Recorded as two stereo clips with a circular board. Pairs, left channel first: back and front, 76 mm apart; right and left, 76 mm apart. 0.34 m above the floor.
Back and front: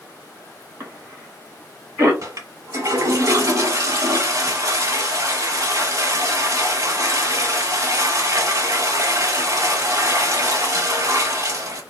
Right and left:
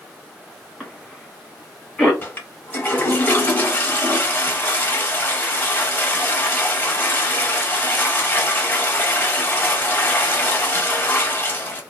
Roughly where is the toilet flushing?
Ahead right.